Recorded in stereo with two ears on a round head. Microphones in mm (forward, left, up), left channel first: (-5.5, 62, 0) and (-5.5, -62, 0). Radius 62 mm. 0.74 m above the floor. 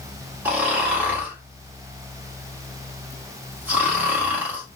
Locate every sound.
0.5 s snoring: 10° right (ahead or behind), 1.3 m